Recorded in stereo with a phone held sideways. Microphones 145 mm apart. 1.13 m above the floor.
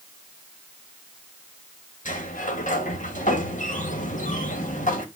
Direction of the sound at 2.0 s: 60° left (ahead or behind).